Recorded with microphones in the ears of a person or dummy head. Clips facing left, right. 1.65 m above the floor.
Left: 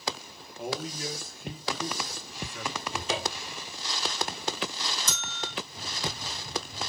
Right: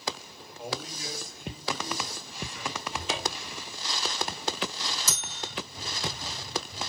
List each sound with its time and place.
0.6 s a man speaking: 50° left (ahead or behind), 1.9 m
2.9 s a cupboard door: 35° left (ahead or behind), 3.5 m
5.1 s a bell: 5° right (ahead or behind), 1.4 m